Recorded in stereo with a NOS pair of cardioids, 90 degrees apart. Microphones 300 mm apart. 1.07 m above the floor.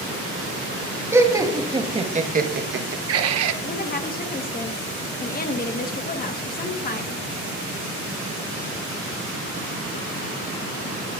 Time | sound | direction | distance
1.1 | laughter | 10° right | 1.8 m
3.6 | a woman speaking | 30° left | 1.4 m